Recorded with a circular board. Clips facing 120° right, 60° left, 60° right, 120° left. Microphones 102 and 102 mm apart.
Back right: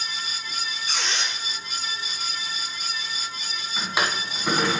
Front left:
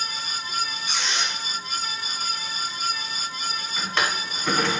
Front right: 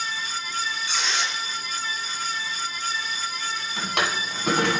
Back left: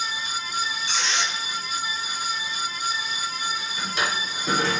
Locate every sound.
0.9 s a squeak: 170° right, 3.5 m
3.8 s a drawer: 45° right, 1.6 m